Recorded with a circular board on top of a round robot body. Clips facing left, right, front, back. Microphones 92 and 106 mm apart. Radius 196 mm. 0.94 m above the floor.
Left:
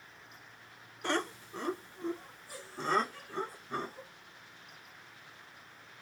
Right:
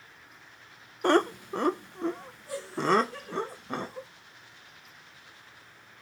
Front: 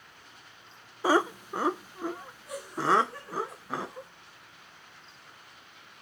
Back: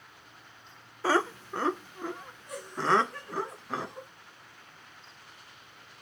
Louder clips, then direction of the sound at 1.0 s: Right 11 dB, front 2 dB; 70° right.